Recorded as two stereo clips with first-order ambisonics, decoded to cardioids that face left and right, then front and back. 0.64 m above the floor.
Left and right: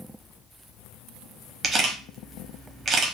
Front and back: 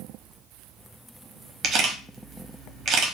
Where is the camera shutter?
145° right, 0.8 m.